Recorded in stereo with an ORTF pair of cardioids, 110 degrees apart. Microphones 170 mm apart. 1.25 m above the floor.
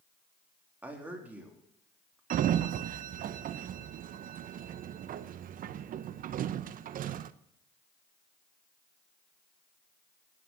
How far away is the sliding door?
About 0.6 m.